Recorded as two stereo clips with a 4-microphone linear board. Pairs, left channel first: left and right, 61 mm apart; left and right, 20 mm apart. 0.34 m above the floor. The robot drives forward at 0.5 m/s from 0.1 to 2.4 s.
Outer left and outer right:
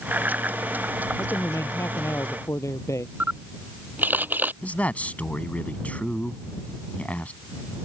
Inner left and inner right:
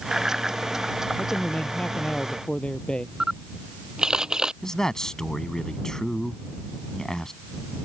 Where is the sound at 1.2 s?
50° left (ahead or behind); by 3.1 s 55° left (ahead or behind).